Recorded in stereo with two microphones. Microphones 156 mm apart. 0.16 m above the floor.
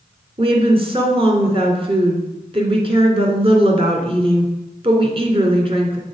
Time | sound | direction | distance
0.4 | a woman speaking | 35° right (ahead or behind) | 1.9 m